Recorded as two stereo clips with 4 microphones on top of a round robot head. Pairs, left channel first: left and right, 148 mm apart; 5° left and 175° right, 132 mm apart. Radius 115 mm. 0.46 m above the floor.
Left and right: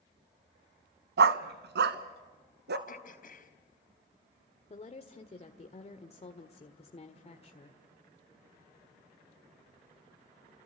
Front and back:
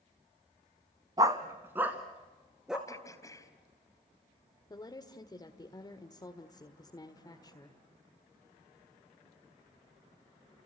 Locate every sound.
1.2 s a dog barking: 105° right, 0.9 m; by 2.8 s 90° right, 2.0 m
2.9 s throat clearing: 70° left, 3.5 m
4.7 s a woman speaking: 55° left, 1.7 m